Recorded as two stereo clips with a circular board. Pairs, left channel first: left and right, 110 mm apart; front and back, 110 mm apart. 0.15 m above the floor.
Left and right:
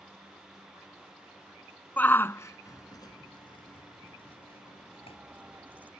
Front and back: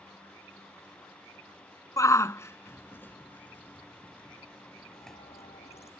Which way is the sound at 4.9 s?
15° right.